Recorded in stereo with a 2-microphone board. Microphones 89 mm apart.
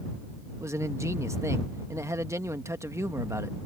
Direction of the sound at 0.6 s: 35° right (ahead or behind).